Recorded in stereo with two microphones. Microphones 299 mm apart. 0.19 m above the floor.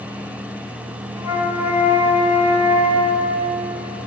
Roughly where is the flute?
Centre.